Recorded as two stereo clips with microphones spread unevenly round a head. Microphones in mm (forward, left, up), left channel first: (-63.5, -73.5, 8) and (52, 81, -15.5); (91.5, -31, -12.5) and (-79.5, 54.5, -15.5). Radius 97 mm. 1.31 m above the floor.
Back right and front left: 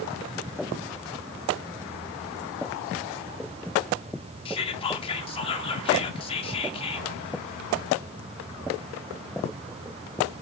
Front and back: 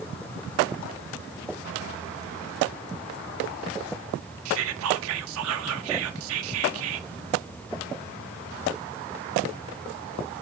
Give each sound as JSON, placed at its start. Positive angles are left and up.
{"t": 4.5, "sound": "whispering", "azimuth_deg": 170, "distance_m": 0.6}